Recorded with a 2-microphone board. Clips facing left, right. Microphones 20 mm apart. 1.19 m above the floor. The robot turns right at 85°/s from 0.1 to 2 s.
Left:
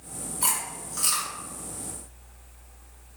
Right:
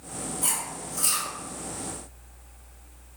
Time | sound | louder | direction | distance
0.4 | chewing | left 3 dB | 75° left (ahead or behind) | 1.1 m